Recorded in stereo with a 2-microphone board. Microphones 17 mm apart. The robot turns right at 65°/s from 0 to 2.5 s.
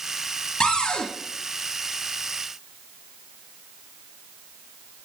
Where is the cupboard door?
70° left, 1.4 m; by 1.1 s 100° left, 1.4 m.